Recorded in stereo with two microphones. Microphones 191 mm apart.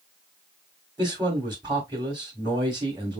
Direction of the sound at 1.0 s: 20° right (ahead or behind).